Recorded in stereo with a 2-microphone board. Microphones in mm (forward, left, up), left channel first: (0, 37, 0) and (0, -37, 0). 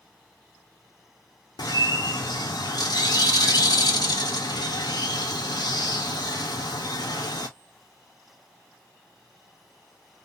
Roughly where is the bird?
Left.